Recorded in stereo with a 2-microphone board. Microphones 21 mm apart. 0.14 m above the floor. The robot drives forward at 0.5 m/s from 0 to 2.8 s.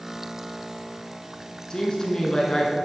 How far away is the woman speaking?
About 1.2 m.